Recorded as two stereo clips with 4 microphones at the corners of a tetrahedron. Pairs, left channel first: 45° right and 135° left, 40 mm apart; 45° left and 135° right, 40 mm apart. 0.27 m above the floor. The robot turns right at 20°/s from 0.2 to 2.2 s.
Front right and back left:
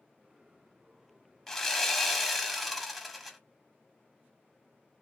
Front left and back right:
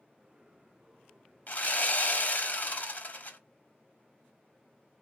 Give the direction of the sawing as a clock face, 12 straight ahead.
11 o'clock.